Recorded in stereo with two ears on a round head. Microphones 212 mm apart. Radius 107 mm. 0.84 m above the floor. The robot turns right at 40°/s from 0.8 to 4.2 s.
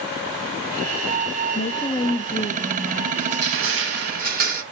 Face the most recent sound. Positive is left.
turn(degrees=-40)